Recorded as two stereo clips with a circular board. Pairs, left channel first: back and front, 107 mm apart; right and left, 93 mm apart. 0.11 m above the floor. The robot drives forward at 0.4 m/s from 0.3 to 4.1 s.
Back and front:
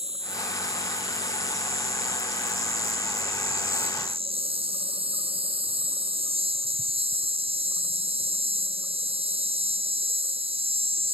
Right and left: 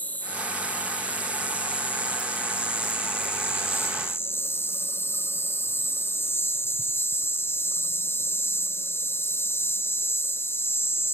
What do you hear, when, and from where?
0.0 s an insect: 15° right; by 11.1 s 25° right